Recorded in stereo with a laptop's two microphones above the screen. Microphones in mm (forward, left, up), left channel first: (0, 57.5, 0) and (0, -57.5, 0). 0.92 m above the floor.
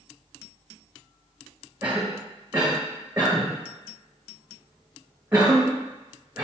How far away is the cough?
About 1.5 m.